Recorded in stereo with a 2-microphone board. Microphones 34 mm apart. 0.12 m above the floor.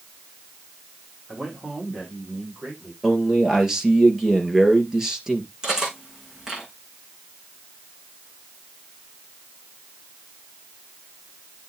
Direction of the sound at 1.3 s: 30° right (ahead or behind).